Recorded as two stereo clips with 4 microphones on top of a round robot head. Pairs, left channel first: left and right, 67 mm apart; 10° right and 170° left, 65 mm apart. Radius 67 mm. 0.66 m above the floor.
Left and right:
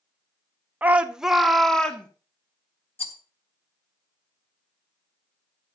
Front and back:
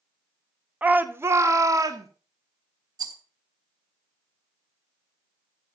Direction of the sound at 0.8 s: 135° right.